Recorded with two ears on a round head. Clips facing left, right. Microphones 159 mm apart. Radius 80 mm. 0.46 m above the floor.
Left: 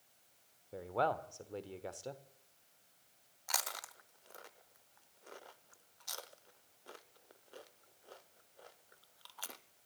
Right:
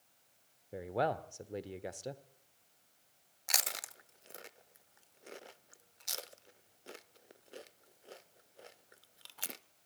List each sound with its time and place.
0.7 s a man speaking: 20° right (ahead or behind), 1.0 m
3.5 s chewing: 25° right (ahead or behind), 0.6 m